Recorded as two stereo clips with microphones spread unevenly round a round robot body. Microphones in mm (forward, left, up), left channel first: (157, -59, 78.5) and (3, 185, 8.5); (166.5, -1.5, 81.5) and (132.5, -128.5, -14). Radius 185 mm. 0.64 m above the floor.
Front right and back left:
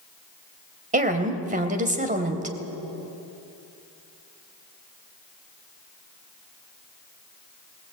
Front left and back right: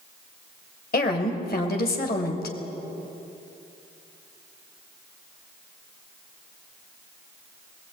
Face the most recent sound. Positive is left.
turn(degrees=60)